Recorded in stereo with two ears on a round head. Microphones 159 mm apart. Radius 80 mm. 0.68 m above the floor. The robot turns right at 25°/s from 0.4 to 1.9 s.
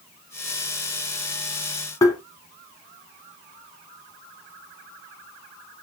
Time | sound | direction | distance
2.0 | tapping | 15° left (ahead or behind) | 1.0 m